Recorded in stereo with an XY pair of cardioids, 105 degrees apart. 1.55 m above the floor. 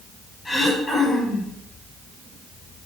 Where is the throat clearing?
20° left, 5 m.